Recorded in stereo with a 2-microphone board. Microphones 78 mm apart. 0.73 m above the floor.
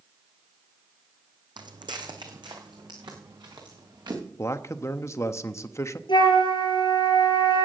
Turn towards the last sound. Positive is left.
turn(degrees=75)  # may be behind; listen again after turning